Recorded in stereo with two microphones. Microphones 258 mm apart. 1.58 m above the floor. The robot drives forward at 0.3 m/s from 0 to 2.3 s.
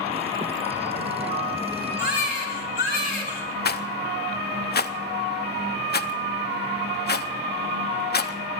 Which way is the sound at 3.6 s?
40° left (ahead or behind).